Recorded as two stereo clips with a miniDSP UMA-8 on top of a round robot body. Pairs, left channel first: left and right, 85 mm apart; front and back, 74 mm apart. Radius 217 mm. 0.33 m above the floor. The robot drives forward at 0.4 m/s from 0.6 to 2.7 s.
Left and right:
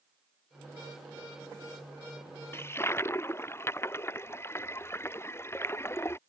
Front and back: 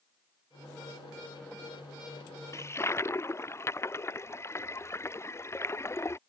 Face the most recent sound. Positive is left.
turn(degrees=40)